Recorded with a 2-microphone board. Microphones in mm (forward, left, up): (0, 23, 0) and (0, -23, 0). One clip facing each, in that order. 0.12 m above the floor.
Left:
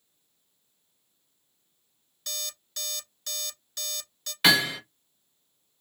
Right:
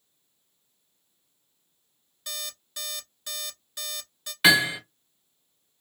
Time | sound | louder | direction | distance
2.3 | an alarm clock | even | 15° right (ahead or behind) | 0.8 m
4.4 | hammering | right 2 dB | 5° right (ahead or behind) | 1.9 m